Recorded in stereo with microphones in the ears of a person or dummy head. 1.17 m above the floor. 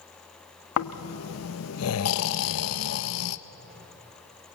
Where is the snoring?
85° left, 0.9 m.